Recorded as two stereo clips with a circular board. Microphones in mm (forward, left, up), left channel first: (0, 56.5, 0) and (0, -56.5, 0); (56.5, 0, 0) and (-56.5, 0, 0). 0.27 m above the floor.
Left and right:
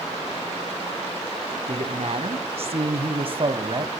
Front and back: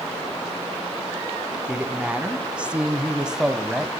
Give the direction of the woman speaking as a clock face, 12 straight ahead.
3 o'clock.